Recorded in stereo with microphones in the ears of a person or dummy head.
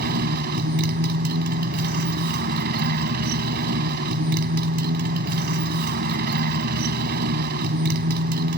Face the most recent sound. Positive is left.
turn(degrees=-55)  # may be behind; listen again after turning